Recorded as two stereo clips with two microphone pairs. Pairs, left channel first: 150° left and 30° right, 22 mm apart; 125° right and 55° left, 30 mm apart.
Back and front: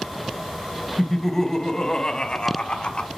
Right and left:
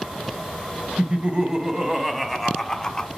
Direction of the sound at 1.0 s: 85° left.